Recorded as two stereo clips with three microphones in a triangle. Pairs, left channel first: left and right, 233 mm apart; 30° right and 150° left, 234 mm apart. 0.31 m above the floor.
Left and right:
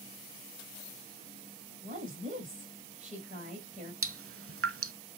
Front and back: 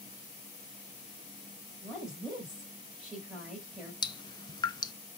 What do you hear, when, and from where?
1.8 s a woman speaking: 125° right, 1.6 m
4.0 s dripping: 105° right, 0.6 m